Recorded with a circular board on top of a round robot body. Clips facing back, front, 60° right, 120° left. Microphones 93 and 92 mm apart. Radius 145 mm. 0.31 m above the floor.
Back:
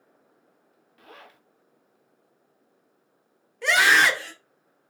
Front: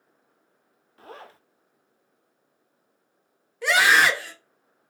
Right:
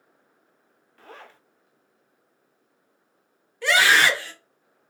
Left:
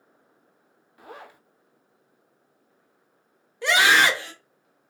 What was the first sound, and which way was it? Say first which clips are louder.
A zipper: front 5 dB, left 2 dB; 45° left.